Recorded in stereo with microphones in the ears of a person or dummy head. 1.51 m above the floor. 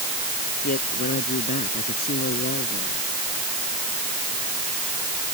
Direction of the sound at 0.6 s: 45° left (ahead or behind).